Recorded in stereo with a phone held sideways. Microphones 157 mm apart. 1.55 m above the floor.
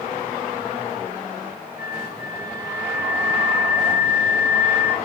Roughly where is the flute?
Left.